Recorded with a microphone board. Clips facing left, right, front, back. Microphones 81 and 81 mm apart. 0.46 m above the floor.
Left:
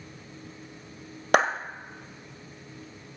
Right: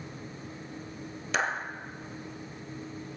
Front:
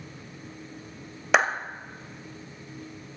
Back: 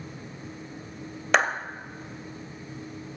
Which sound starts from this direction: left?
A clap, at 1.3 s.